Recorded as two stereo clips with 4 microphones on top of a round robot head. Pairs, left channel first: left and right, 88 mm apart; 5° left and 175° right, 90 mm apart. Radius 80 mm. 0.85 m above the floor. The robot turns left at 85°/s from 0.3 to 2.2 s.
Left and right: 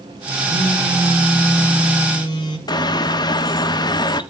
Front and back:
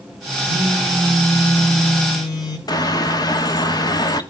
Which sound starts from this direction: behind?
A phone buzzing, at 0.5 s.